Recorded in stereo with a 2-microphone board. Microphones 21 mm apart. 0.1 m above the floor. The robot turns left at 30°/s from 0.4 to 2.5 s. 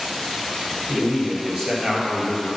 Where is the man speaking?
50° right, 2.5 m; by 2.5 s 95° right, 2.5 m.